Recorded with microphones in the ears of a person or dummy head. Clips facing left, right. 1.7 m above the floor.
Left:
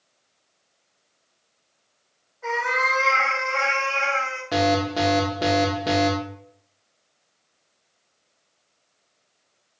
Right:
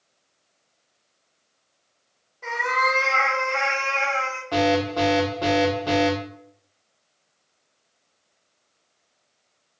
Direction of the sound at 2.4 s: 40° right (ahead or behind).